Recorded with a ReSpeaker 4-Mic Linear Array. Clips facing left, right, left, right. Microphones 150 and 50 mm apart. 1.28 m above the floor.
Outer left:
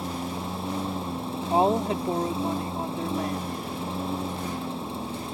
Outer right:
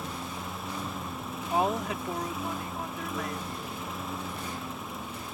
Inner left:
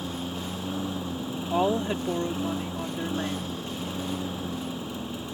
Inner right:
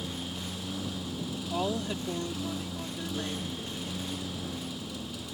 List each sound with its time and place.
0.0 s a lawn mower: 30° left (ahead or behind)
1.5 s a woman speaking: 30° left (ahead or behind)